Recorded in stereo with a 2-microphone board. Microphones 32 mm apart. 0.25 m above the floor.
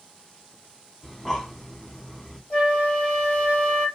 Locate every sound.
1.0 s breathing: 10° left (ahead or behind), 0.6 m
2.5 s a flute: 40° left (ahead or behind), 2.0 m